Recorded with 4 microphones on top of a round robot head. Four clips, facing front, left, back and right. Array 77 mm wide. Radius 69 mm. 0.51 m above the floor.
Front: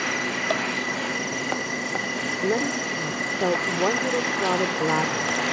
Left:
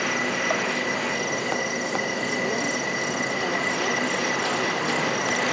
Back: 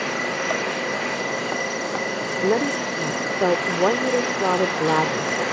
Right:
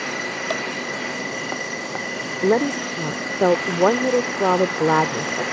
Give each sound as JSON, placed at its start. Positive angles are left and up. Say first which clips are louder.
{"t": 2.4, "sound": "a woman speaking", "louder": "right 6 dB, back 4 dB", "azimuth_deg": -105}